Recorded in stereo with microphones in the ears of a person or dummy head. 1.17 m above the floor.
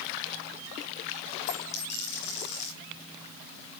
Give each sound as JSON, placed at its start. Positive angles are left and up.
{"t": 1.5, "sound": "a dropped coin", "side_deg": 75, "distance_m": 6.0}